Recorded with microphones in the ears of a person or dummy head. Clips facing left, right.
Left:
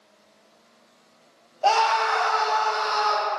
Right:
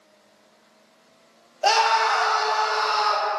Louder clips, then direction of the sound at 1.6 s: Even; 25° right (ahead or behind).